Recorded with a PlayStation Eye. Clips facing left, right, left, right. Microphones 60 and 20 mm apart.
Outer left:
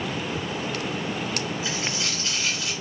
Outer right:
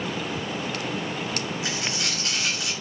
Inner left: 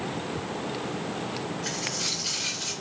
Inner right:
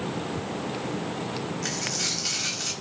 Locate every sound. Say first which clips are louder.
1.6 s a dropped coin: even, inner right 2 dB; 70° right (ahead or behind), 1.8 m